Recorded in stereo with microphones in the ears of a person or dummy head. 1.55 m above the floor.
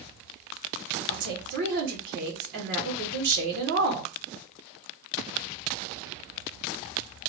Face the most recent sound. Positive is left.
turn(degrees=-65)  # may be behind; listen again after turning